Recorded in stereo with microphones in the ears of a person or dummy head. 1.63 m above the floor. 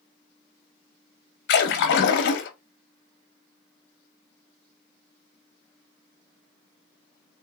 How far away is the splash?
About 0.8 m.